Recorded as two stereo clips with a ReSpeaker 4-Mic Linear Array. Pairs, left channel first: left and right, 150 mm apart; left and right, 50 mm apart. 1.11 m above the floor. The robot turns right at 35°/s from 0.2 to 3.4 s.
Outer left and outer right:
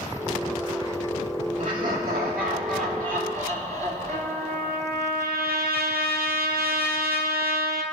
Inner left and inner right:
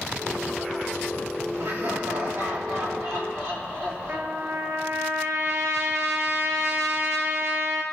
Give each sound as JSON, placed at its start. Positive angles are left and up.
{"t": 1.6, "sound": "laughter", "azimuth_deg": -120, "distance_m": 3.0}
{"t": 4.1, "sound": "a trumpet", "side_deg": -80, "distance_m": 1.2}